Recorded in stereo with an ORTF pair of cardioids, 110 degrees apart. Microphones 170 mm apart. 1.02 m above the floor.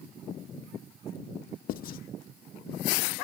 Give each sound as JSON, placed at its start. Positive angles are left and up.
{"t": 1.7, "sound": "writing", "azimuth_deg": 60, "distance_m": 0.7}